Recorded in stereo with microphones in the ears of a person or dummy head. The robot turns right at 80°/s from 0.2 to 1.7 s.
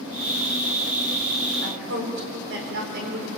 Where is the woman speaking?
60° right (ahead or behind), 5.5 m; by 3.3 s 65° right (ahead or behind), 5.5 m.